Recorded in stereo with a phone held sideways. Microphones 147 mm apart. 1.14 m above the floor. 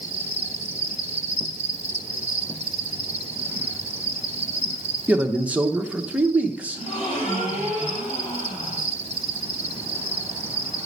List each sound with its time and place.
0.0 s an insect: 40° right (ahead or behind), 1.0 m
5.1 s a man speaking: 10° right (ahead or behind), 0.9 m
6.7 s a gasp: 45° left (ahead or behind), 5.5 m